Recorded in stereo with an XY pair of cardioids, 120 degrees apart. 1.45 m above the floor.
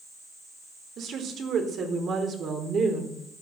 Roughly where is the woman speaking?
Ahead right.